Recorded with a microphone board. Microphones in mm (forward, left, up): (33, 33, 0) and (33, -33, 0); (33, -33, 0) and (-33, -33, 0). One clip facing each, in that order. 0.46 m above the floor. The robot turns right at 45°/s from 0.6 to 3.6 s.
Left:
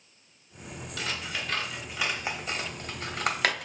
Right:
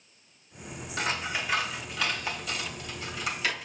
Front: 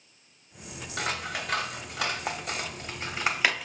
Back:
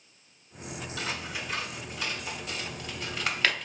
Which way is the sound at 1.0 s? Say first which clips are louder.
Right 4 dB, front 5 dB; 35° right.